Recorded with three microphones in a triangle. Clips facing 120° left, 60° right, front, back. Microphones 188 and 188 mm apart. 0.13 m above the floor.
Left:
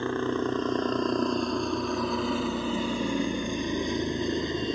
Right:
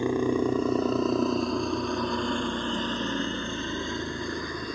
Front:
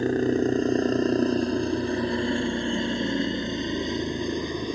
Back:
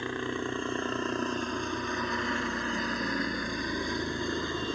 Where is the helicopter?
10° left; by 4.8 s 65° left.